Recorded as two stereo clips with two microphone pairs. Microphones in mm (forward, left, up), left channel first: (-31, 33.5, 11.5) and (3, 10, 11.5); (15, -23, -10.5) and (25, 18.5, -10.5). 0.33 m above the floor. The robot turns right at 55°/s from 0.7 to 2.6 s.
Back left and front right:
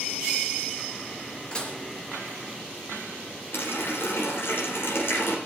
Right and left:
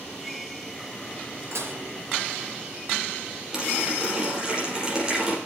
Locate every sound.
1.5 s dishes clattering: 80° left, 4 m; by 1.8 s 95° left, 4 m
3.5 s a running tap: 150° left, 5.5 m